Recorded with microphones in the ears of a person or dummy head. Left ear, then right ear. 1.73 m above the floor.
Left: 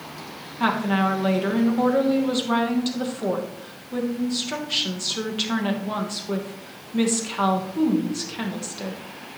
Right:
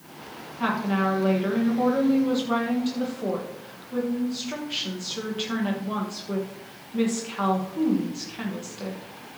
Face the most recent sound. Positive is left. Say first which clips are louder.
# left 3 dB
turn(degrees=10)  # may be behind; listen again after turning